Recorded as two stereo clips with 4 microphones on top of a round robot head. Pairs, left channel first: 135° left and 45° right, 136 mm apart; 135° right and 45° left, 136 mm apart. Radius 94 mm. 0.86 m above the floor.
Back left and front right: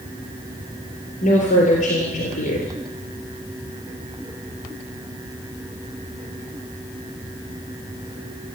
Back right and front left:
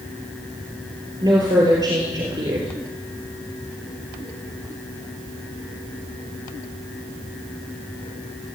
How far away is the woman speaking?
About 3.5 m.